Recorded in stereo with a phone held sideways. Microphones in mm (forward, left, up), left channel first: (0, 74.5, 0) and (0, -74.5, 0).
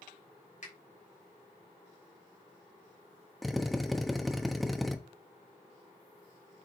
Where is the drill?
Centre (ahead or behind), 1.0 m.